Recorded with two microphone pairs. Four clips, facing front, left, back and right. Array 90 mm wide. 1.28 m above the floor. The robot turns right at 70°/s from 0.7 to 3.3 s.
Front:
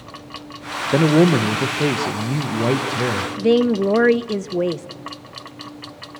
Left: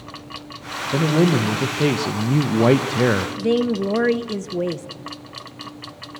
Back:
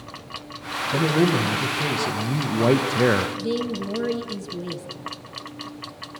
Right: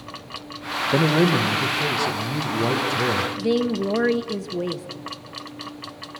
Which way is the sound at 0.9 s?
20° right.